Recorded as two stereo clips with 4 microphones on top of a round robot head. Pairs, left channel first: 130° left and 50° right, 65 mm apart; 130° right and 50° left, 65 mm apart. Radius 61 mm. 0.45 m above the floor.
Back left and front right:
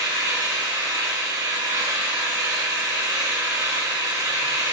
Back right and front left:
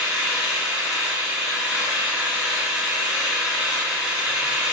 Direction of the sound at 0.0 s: 25° right.